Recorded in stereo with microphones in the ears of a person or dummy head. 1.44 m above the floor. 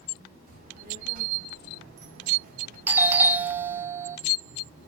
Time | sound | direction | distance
0.5 | a child speaking | 50° right (ahead or behind) | 3 m
2.9 | a doorbell | 10° right (ahead or behind) | 0.8 m